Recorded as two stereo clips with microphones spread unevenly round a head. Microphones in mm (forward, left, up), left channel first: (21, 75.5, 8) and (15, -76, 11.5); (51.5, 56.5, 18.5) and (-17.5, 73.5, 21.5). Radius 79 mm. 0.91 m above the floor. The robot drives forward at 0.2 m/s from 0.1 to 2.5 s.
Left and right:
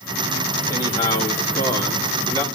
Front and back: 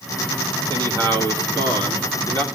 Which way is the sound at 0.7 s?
155° left.